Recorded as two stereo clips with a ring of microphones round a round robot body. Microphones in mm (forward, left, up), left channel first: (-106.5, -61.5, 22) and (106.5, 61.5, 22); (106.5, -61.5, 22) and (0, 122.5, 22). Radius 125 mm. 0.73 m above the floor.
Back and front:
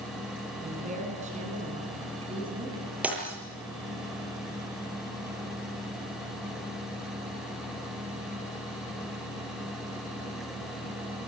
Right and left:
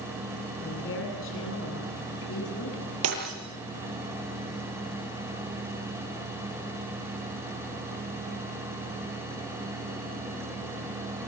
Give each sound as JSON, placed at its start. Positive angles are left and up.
{"t": 0.6, "sound": "a woman speaking", "azimuth_deg": -30, "distance_m": 10.0}
{"t": 3.0, "sound": "breaking glass", "azimuth_deg": 115, "distance_m": 8.5}